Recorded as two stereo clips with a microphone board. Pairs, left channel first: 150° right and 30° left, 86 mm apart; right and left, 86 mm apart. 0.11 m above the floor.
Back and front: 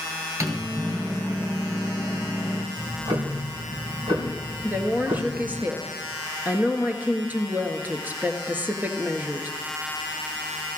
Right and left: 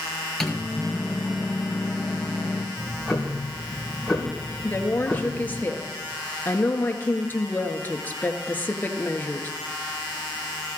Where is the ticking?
Straight ahead, 2.5 m.